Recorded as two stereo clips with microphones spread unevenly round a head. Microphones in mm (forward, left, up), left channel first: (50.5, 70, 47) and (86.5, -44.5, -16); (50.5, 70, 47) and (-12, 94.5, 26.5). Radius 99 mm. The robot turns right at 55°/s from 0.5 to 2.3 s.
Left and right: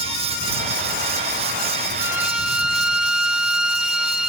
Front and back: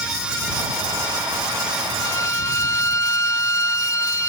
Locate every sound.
2.0 s a violin: straight ahead; by 4.3 s 20° left